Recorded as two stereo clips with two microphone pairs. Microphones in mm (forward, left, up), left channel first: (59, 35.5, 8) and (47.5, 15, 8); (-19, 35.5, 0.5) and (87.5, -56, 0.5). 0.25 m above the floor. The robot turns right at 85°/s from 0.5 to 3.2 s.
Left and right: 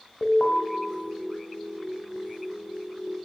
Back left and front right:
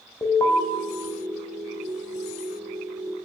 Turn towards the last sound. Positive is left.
turn(degrees=-55)